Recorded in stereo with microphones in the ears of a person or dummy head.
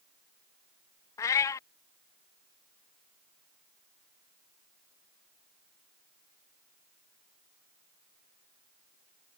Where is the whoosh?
No whoosh in this recording.